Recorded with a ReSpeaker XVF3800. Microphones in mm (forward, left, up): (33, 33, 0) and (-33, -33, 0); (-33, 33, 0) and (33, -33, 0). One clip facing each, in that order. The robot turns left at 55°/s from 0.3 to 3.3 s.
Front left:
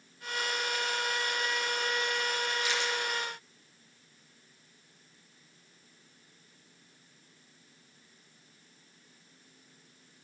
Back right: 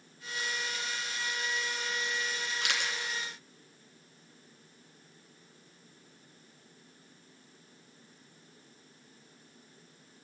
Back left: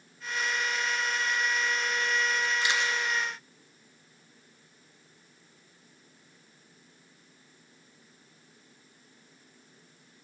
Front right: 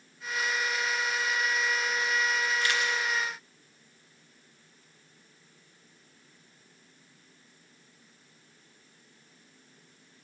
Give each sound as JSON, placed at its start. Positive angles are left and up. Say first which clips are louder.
{"t": 2.6, "sound": "a camera shutter", "louder": "front left 3 dB, even", "azimuth_deg": -150, "distance_m": 1.9}